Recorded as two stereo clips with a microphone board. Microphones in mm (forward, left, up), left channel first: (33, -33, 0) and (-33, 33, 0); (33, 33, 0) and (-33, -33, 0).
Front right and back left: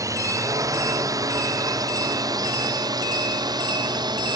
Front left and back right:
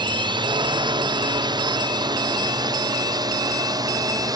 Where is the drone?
170° right; by 4.4 s 175° left.